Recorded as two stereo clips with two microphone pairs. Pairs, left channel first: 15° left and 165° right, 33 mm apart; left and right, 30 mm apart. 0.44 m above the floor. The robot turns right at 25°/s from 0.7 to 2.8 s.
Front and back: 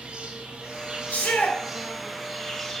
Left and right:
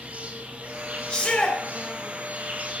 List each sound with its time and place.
0.0 s an insect: 115° right, 3 m; by 2.8 s 60° right, 3 m
1.1 s a shout: 30° left, 2.5 m; by 1.6 s 40° left, 2.5 m